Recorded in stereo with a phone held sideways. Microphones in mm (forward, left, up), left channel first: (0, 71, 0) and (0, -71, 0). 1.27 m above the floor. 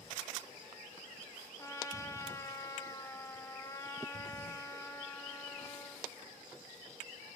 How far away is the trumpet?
About 1.0 m.